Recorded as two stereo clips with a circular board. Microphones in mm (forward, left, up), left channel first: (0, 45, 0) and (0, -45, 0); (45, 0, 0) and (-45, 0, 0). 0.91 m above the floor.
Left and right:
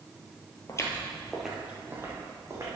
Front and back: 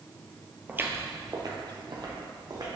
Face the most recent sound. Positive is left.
turn(degrees=-140)